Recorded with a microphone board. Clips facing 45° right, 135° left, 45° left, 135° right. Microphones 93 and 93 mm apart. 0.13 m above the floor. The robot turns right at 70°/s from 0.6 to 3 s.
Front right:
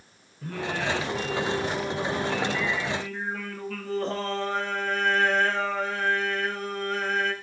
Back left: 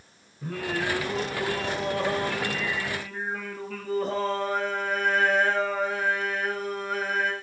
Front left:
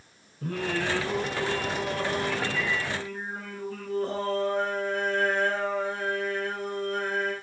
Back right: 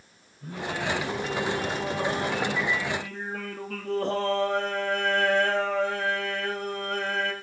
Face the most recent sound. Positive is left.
turn(degrees=-140)